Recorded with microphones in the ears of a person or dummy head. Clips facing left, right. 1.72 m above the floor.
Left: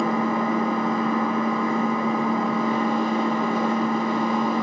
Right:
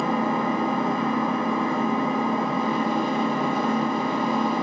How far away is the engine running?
About 6 m.